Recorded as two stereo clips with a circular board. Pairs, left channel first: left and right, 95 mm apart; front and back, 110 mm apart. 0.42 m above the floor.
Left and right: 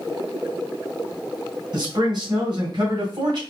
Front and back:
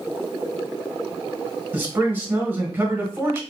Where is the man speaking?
110° right, 1.9 m.